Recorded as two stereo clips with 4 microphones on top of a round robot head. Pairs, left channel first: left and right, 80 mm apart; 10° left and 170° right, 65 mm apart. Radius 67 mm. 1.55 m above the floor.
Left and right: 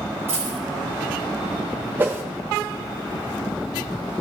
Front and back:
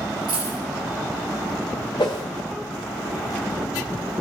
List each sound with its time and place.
0.3 s a dropped coin: 160° right, 3 m
2.0 s a whoosh: 30° right, 0.9 m